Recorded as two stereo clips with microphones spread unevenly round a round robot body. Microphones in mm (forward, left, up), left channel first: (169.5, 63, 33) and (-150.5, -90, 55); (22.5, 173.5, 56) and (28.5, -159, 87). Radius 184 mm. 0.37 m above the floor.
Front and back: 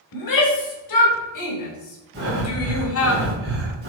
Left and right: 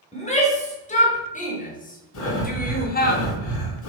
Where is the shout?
25° left, 3 m; by 3.1 s 50° left, 1.8 m.